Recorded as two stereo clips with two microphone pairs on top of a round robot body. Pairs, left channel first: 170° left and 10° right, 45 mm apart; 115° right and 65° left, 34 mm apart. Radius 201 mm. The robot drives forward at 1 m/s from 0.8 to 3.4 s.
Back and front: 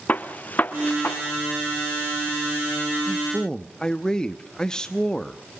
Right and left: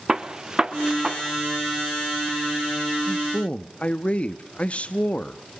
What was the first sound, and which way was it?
A gunshot, 130° left.